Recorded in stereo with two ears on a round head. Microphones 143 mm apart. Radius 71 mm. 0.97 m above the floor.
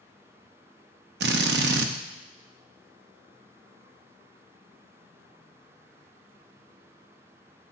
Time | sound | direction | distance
1.2 | a drill | 75° right (ahead or behind) | 0.7 m